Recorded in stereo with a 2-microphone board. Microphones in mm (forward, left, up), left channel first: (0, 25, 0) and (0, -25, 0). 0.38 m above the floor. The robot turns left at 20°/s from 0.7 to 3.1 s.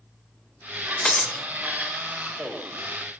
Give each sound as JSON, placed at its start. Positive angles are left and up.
{"t": 1.1, "sound": "breaking glass", "side_deg": 15, "distance_m": 0.7}